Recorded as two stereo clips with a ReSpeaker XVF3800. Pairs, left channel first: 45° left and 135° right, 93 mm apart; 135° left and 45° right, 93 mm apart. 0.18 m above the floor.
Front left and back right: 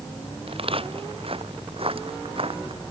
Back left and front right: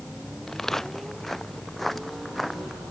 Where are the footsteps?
140° right; by 2.8 s 135° right.